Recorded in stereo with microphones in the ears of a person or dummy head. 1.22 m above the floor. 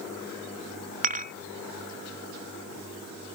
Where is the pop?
No pop in this recording.